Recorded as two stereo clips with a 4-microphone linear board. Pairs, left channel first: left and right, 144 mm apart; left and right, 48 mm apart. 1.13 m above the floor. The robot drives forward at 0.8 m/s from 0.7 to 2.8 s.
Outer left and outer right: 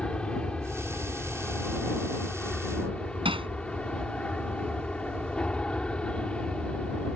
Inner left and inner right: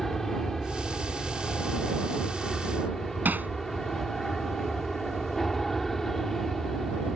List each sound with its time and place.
0.0 s an aircraft: 5° left (ahead or behind)
3.2 s hammering: 35° right (ahead or behind)